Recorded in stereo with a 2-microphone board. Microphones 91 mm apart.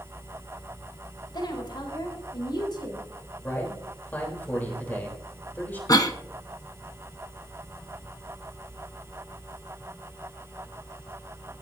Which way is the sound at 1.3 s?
55° left (ahead or behind).